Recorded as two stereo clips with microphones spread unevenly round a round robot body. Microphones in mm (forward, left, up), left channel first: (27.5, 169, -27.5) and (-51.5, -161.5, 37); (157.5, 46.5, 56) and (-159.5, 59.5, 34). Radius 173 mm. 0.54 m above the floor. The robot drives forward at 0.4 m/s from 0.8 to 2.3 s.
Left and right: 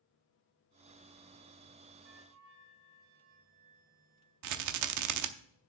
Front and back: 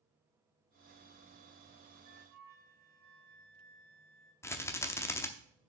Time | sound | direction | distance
2.0 | a flute | 120° right | 2 m
4.4 | a rattle | 85° right | 0.7 m